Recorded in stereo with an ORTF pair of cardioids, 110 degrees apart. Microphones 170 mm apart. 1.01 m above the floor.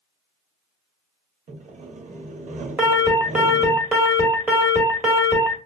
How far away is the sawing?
About 0.9 m.